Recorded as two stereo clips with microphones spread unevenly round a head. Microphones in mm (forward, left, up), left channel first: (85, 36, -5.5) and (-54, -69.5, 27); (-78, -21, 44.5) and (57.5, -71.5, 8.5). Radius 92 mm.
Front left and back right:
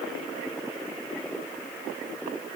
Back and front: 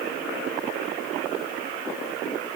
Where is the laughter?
No laughter in this recording.